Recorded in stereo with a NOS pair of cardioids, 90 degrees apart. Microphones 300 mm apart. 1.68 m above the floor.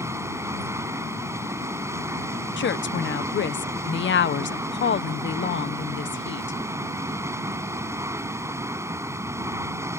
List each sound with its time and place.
0.0 s running water: 10° right
2.6 s a woman speaking: 40° left